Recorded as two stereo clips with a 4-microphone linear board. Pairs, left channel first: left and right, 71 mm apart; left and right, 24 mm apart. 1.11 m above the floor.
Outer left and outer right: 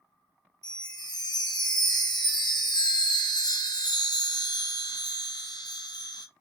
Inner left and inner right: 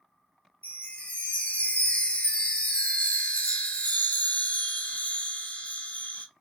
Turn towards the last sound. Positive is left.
turn(degrees=80)